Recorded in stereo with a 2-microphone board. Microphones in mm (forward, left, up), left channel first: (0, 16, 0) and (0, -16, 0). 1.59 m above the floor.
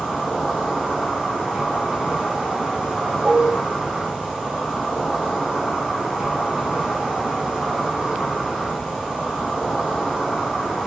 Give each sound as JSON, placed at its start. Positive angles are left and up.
{"t": 0.0, "sound": "an insect", "side_deg": -10, "distance_m": 1.1}
{"t": 3.2, "sound": "dishes clattering", "side_deg": -50, "distance_m": 1.2}